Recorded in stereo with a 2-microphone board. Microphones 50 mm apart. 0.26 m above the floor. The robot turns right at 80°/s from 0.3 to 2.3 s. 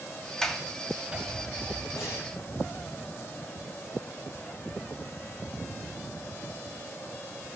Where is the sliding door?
10° left (ahead or behind), 1.7 m; by 1.8 s 30° right (ahead or behind), 1.7 m.